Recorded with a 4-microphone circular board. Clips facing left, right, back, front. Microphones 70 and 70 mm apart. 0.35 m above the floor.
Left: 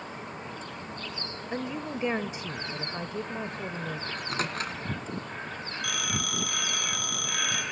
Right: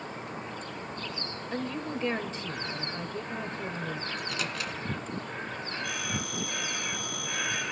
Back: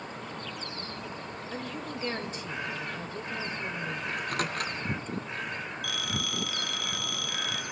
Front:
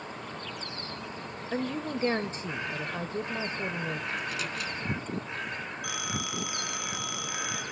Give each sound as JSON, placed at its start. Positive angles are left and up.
{"t": 1.5, "sound": "a woman speaking", "azimuth_deg": 25, "distance_m": 1.3}
{"t": 4.1, "sound": "a microwave", "azimuth_deg": 140, "distance_m": 2.5}
{"t": 5.8, "sound": "a phone ringing", "azimuth_deg": 70, "distance_m": 3.0}